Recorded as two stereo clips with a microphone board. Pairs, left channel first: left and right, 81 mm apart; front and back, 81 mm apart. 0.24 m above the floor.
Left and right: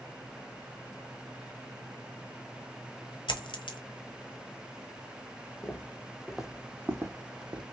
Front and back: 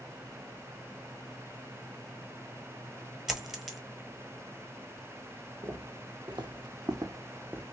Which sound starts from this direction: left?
A dropped coin, at 3.3 s.